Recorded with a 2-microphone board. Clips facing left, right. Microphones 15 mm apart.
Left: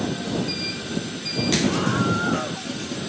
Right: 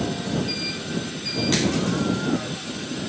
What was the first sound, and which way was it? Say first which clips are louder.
A scream: left 1 dB; 30° left (ahead or behind).